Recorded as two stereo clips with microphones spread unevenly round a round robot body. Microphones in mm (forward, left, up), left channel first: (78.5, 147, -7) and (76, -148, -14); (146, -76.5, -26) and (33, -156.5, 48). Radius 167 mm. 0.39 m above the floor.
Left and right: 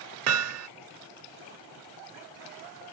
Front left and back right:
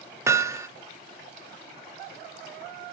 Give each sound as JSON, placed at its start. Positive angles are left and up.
{"t": 0.3, "sound": "hammering", "azimuth_deg": -55}